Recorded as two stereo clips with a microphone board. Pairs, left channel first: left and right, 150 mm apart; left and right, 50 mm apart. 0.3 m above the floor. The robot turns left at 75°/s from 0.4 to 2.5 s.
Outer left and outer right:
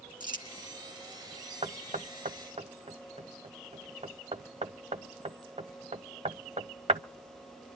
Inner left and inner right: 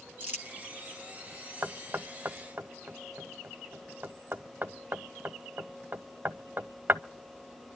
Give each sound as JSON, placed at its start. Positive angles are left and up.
{"t": 0.2, "sound": "crumpling", "side_deg": -30, "distance_m": 4.0}
{"t": 1.6, "sound": "knocking", "side_deg": -40, "distance_m": 0.9}